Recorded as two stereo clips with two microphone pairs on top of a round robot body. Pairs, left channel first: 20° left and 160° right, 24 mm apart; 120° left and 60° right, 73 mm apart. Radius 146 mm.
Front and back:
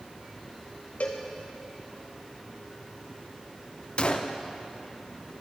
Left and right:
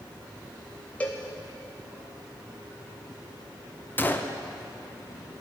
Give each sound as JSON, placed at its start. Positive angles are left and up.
{"t": 1.0, "sound": "a cowbell", "azimuth_deg": 50, "distance_m": 0.5}
{"t": 4.0, "sound": "a gunshot", "azimuth_deg": 55, "distance_m": 0.6}